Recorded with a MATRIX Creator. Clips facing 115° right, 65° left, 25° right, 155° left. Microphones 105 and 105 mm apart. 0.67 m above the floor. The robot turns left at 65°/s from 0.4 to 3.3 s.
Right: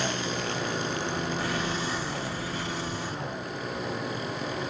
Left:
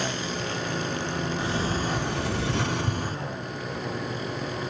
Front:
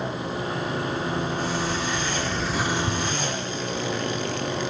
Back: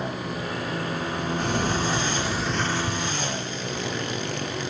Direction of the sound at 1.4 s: 135° left.